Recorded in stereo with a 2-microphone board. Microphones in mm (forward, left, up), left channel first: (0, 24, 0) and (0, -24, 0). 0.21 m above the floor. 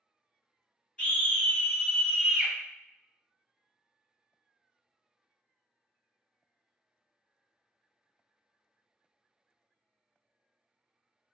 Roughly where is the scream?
Left.